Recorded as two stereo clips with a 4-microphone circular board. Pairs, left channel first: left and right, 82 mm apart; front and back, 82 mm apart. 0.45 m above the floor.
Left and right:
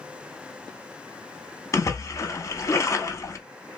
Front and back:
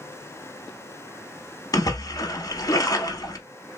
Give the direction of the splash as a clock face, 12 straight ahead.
11 o'clock.